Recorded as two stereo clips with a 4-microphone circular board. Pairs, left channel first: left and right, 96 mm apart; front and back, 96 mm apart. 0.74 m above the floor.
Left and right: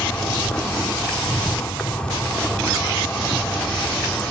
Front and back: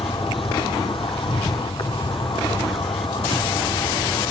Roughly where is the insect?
Ahead.